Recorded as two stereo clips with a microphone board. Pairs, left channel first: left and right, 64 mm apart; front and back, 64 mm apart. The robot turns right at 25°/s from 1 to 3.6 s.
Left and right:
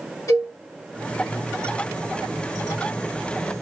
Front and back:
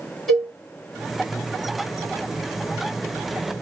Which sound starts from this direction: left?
A cowbell, at 0.3 s.